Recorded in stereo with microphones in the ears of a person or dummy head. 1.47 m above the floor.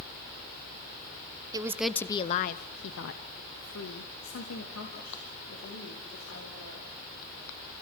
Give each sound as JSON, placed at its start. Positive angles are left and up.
{"t": 1.5, "sound": "a woman speaking", "side_deg": -20, "distance_m": 0.8}